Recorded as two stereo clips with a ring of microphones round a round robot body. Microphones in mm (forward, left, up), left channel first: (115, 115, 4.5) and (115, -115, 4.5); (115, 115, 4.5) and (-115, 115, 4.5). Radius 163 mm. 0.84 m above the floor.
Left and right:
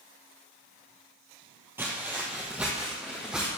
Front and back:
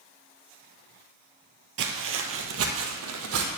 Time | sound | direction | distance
1.8 | footsteps | 170° right | 1.2 m